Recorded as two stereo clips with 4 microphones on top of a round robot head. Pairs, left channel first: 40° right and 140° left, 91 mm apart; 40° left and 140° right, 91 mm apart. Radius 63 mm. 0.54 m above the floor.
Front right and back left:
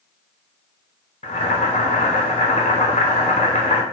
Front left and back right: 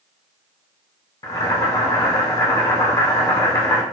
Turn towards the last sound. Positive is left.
turn(degrees=-15)